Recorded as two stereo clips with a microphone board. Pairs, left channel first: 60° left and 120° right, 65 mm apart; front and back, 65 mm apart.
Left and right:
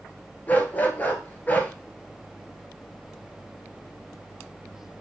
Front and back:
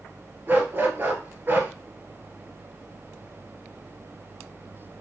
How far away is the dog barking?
About 0.9 m.